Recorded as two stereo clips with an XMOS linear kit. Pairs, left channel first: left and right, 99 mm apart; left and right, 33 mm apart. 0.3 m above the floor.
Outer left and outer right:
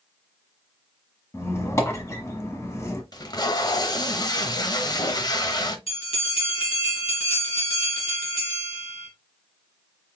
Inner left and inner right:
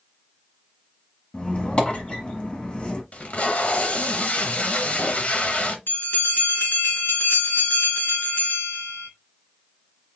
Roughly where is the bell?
Left.